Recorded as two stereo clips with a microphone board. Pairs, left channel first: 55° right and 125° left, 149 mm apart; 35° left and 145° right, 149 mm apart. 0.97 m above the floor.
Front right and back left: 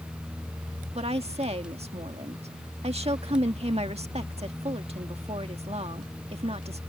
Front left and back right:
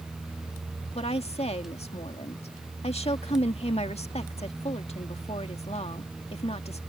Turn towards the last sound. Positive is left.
turn(degrees=80)